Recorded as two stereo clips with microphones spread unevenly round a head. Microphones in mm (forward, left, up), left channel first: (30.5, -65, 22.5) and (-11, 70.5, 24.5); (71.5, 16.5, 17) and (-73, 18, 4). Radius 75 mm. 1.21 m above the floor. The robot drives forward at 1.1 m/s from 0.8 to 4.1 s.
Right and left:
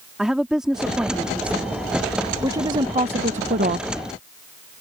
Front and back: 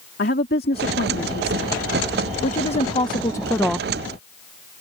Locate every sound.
0.2 s a woman speaking: 20° left; by 3.9 s 95° left